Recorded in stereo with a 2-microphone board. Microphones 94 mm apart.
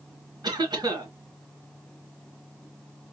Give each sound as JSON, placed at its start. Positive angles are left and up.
{"t": 0.4, "sound": "a cough", "side_deg": -45, "distance_m": 2.5}